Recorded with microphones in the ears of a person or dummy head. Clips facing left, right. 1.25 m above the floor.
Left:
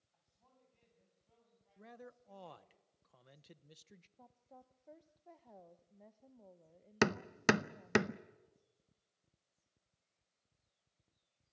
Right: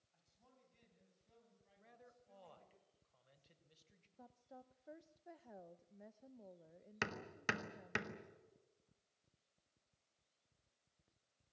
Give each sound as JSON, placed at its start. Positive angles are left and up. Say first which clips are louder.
{"t": 0.1, "sound": "a man speaking", "louder": "right 1 dB", "side_deg": -30, "distance_m": 9.0}
{"t": 1.8, "sound": "a man speaking", "louder": "left 11 dB", "side_deg": 65, "distance_m": 0.9}
{"t": 4.2, "sound": "a woman speaking", "louder": "right 4 dB", "side_deg": -10, "distance_m": 0.7}
{"t": 7.0, "sound": "hammering", "louder": "left 14 dB", "side_deg": 70, "distance_m": 0.7}